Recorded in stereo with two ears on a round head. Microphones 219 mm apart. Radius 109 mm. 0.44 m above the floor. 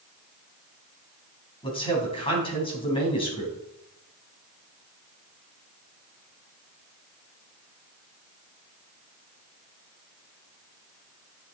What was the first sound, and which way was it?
A man speaking, 20° left (ahead or behind).